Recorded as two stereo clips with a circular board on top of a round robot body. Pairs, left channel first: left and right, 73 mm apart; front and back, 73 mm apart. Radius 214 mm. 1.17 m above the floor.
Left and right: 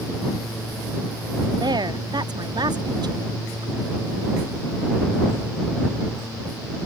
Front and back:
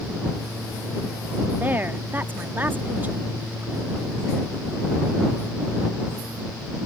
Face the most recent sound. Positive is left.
turn(degrees=-115)